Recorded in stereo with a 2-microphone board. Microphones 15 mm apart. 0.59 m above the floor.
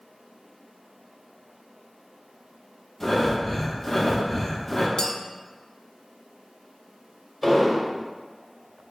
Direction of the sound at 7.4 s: 10° left (ahead or behind).